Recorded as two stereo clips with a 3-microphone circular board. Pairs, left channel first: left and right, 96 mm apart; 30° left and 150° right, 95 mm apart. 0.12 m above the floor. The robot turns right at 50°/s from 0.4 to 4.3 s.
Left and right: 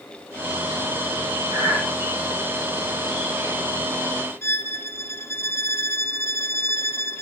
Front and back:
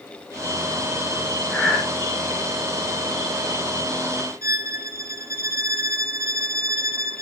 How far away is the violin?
About 1.3 m.